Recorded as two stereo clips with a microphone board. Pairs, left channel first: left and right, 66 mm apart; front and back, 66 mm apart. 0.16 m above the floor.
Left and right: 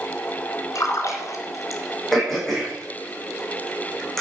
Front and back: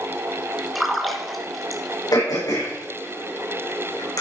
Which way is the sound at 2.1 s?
5° left.